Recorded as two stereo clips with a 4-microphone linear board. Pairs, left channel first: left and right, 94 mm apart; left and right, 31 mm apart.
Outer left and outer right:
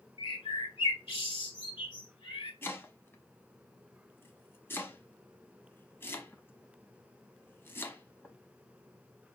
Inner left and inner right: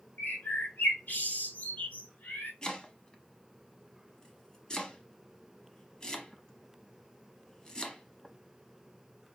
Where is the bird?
65° left (ahead or behind), 3 m.